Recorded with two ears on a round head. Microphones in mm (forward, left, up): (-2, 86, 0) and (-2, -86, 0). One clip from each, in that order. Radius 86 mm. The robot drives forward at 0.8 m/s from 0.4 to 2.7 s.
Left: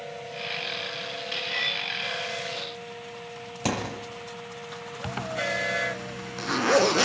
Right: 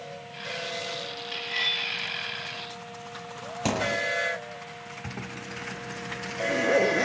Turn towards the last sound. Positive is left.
turn(degrees=70)  # may be behind; listen again after turning